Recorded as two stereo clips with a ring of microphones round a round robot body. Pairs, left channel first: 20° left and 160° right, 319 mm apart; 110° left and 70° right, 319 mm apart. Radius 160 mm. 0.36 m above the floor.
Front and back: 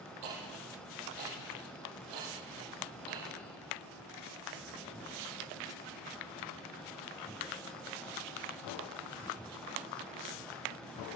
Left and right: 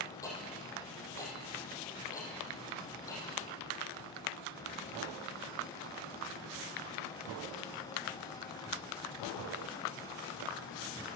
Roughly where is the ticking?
Behind.